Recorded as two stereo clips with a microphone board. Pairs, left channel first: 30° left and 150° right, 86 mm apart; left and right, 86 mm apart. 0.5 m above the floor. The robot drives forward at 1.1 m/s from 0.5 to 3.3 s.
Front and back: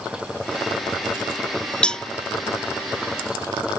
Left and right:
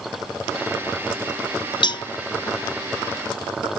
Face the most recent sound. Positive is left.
turn(degrees=135)